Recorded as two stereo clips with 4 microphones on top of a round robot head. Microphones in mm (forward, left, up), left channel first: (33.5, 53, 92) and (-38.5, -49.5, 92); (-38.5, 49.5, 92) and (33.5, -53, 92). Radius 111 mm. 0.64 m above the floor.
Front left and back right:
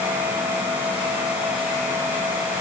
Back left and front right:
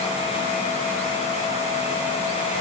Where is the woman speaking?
I don't hear a woman speaking.